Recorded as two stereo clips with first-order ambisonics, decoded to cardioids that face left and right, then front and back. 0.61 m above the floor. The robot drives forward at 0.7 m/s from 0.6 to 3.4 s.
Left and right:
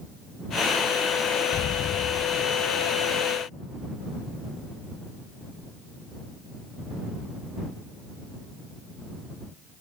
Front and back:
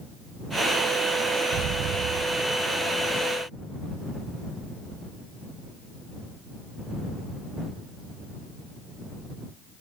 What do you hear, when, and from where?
1.5 s an explosion: 145° left; by 2.9 s 155° left